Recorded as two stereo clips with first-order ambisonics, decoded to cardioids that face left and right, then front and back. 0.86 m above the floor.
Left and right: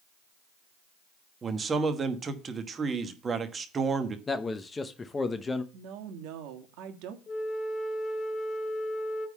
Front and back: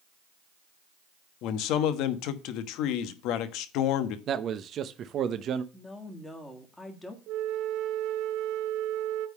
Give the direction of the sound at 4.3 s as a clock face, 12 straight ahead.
7 o'clock.